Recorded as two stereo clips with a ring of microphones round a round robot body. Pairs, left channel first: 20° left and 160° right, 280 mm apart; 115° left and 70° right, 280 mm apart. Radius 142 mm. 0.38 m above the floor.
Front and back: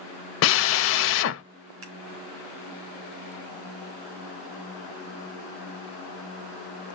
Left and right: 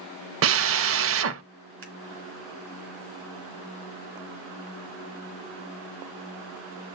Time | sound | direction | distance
0.4 | a drill | 25° right | 0.5 m
1.8 | scissors | 115° right | 3.5 m